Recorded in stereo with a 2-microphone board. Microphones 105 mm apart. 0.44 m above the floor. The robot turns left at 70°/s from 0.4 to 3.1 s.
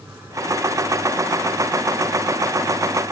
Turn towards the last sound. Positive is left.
No sound to turn to.